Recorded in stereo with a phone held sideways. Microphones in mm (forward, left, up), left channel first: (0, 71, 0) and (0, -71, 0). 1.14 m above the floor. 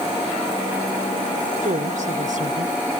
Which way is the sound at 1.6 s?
75° right (ahead or behind).